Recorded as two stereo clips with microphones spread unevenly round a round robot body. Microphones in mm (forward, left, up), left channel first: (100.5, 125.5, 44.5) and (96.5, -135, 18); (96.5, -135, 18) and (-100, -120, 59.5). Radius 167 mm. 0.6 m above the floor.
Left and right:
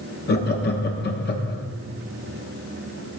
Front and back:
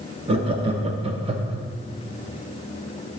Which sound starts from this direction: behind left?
Laughter, at 0.3 s.